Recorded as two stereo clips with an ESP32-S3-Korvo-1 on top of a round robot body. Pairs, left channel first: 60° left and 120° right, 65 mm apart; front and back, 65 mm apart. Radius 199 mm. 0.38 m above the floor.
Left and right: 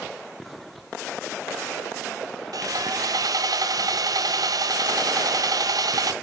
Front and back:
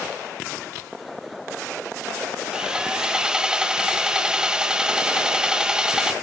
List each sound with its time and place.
2.5 s sawing: 100° right, 0.8 m